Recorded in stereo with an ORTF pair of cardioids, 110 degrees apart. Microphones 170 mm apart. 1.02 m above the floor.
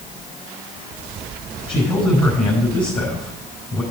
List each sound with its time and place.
1.7 s a man speaking: 30° left, 6 m